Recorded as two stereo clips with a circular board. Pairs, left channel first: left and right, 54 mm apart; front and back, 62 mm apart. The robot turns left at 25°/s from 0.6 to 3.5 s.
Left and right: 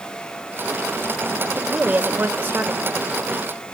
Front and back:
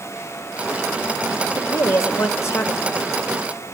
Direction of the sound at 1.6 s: 15° right.